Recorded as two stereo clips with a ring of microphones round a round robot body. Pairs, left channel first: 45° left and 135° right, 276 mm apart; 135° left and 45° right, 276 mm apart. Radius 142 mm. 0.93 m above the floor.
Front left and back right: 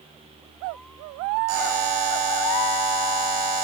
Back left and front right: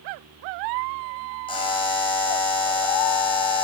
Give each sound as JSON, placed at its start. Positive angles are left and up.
{"t": 1.5, "sound": "a buzzer", "azimuth_deg": -150, "distance_m": 8.0}